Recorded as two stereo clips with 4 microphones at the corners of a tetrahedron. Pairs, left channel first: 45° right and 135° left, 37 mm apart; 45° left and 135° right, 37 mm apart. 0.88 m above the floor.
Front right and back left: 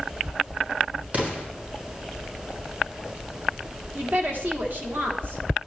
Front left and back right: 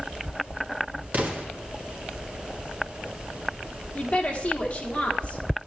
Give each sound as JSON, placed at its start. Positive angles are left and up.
{"t": 1.1, "sound": "an explosion", "azimuth_deg": 180, "distance_m": 1.8}
{"t": 4.0, "sound": "a woman speaking", "azimuth_deg": 105, "distance_m": 1.7}